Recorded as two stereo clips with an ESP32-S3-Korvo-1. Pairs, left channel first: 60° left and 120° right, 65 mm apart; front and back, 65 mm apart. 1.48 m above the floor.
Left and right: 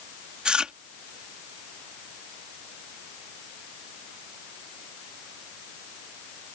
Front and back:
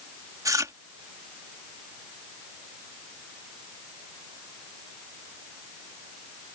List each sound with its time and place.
0.5 s chewing: 165° left